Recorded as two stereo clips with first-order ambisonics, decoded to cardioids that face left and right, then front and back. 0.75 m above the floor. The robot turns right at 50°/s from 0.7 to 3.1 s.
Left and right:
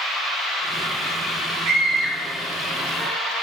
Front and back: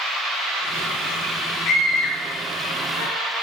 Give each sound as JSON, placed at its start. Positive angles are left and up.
{"t": 1.6, "sound": "a scream", "azimuth_deg": -45, "distance_m": 1.9}